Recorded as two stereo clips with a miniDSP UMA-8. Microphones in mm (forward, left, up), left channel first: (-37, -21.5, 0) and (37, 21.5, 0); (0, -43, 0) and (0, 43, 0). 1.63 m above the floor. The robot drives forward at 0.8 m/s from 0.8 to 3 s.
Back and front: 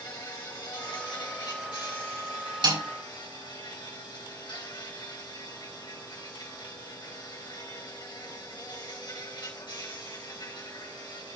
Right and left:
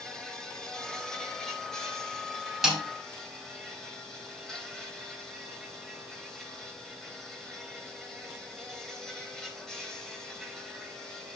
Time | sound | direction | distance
0.0 | an insect | 170° right | 1.7 m
2.6 | a snare drum | 5° left | 6 m